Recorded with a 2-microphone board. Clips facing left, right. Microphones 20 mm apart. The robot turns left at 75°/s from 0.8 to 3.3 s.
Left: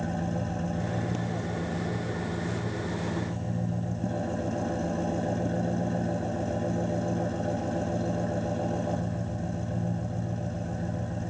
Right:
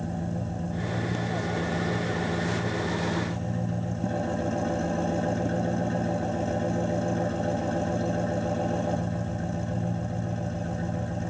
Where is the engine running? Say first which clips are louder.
Left 1 dB; 20° left, 0.9 m; by 11.3 s 170° right, 0.9 m.